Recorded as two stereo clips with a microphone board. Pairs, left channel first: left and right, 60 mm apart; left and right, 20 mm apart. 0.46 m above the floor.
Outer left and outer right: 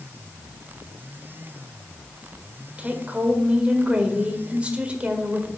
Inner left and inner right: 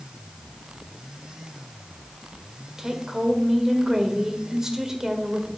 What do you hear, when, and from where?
2.8 s a woman speaking: 20° right (ahead or behind), 1.5 m